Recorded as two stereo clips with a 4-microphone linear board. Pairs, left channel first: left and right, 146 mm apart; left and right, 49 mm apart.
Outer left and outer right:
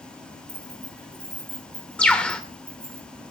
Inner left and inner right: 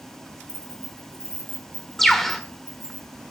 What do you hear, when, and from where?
0.5 s keys jangling: 50° left (ahead or behind), 7.5 m
2.0 s a bird: 5° left (ahead or behind), 1.6 m